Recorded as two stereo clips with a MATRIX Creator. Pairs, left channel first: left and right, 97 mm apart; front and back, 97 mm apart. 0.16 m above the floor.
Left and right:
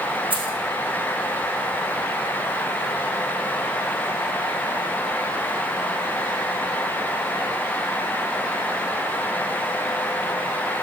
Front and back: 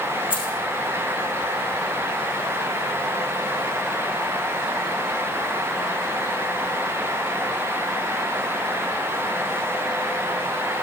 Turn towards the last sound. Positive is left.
turn(degrees=-15)